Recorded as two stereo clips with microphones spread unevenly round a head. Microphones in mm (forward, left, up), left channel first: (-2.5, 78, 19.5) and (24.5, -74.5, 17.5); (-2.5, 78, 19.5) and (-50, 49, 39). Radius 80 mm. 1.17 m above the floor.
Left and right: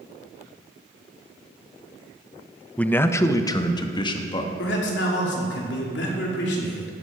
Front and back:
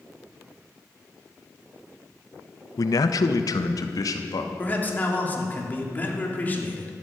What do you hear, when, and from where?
2.8 s a man speaking: 15° left, 0.7 m; by 4.5 s 40° left, 1.7 m
4.6 s a man speaking: 90° left, 3 m